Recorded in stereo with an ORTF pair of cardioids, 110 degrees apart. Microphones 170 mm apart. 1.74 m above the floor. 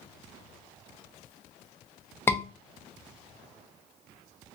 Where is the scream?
15° left, 0.6 m.